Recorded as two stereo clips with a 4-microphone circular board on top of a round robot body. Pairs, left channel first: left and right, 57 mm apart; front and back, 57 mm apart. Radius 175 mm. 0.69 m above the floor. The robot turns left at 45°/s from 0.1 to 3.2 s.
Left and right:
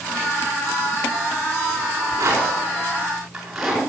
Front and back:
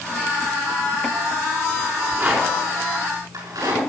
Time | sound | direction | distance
1.9 | a rattle | 115° right | 5 m